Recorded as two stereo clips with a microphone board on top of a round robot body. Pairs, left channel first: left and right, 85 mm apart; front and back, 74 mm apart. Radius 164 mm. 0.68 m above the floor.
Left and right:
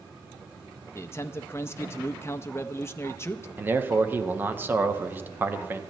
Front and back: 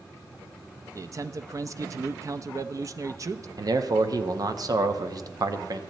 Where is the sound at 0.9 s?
145° left, 0.7 m.